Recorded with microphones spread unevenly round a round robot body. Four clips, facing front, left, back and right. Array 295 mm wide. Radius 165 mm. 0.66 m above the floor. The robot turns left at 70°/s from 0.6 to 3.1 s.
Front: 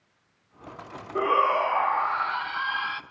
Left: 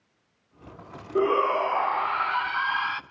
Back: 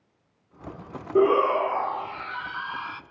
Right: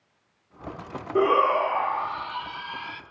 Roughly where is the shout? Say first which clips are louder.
Right 2 dB, back 3 dB; behind right.